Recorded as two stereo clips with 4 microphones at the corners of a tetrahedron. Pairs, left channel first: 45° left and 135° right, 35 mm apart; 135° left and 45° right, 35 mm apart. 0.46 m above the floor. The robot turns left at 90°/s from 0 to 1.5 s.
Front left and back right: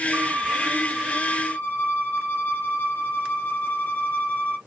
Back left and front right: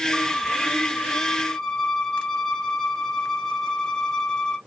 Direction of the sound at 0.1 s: 170° right.